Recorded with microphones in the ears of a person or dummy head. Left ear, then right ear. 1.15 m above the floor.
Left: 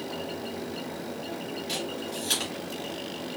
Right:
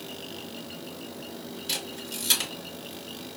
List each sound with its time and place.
1.7 s a camera shutter: 60° right (ahead or behind), 2.5 m